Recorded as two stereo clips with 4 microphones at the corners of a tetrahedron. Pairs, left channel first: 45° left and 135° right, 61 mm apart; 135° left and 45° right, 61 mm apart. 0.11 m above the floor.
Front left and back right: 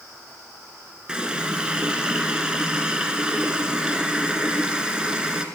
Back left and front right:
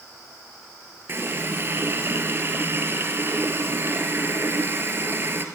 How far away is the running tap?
About 1.3 m.